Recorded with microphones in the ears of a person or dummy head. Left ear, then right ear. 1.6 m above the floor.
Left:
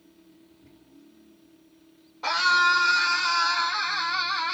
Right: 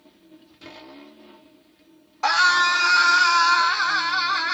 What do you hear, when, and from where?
2.2 s a scream: 40° right (ahead or behind), 1.7 m; by 4.5 s 50° right (ahead or behind), 3 m